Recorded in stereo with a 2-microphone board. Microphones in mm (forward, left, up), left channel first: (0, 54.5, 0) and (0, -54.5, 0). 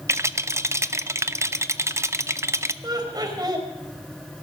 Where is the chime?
No chime in this recording.